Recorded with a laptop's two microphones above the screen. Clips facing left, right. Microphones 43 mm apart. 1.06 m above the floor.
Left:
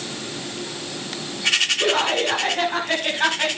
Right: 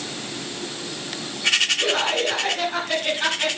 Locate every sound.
1.8 s laughter: 40° left (ahead or behind), 7.5 m